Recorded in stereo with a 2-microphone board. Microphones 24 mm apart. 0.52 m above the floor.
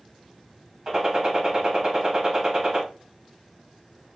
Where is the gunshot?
30° right (ahead or behind), 2.5 m.